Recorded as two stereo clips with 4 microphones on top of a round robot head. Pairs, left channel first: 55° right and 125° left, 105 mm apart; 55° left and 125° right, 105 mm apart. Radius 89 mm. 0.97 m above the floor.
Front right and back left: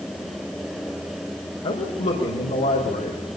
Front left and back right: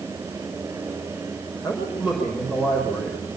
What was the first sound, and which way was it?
A man speaking, 40° right.